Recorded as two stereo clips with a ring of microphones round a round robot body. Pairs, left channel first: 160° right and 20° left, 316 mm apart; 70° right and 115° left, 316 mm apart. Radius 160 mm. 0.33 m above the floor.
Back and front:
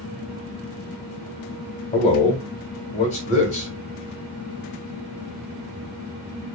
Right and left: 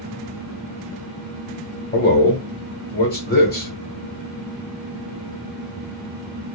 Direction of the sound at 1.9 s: 105° right.